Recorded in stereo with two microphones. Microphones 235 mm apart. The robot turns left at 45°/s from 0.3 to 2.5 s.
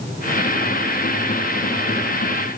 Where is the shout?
No shout in this recording.